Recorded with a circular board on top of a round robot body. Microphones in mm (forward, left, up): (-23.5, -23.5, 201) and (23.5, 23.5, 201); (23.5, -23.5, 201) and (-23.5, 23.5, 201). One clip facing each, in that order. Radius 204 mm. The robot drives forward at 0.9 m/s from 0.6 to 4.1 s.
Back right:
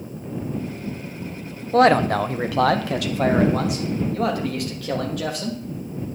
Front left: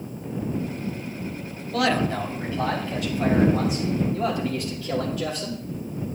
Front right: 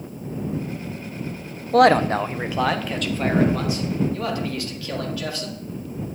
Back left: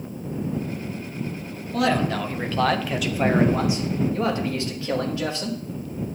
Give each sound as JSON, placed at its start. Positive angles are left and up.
{"t": 1.7, "sound": "a man speaking", "azimuth_deg": -75, "distance_m": 0.9}